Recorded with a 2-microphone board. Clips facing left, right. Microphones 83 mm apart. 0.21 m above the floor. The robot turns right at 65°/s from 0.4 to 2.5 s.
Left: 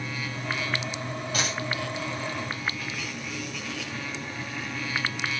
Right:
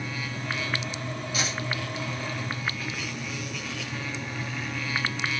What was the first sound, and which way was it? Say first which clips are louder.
A dropped coin: left 1 dB; 55° left (ahead or behind).